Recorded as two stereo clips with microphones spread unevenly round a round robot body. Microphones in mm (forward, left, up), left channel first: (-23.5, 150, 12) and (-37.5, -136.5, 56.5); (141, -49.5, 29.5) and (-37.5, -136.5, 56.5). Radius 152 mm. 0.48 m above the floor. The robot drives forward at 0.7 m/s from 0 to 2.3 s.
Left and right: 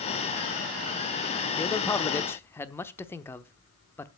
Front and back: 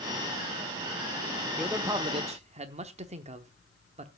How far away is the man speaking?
About 0.8 m.